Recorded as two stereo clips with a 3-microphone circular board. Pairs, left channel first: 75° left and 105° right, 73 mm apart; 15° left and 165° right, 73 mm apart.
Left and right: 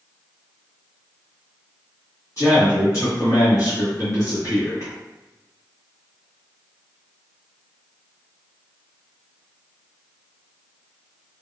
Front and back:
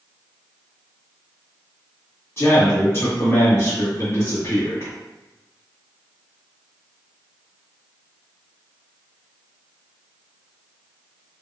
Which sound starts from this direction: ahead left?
A man speaking, at 2.4 s.